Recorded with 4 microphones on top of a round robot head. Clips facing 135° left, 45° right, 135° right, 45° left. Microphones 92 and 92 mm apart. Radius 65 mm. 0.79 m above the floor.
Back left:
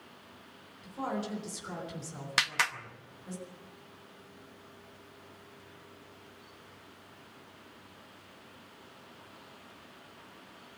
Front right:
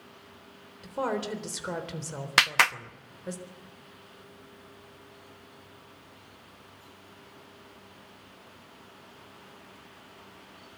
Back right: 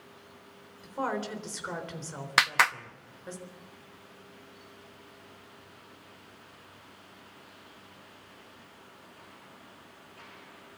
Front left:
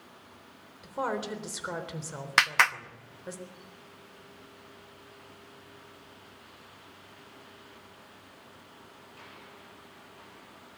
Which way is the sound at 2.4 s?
50° right.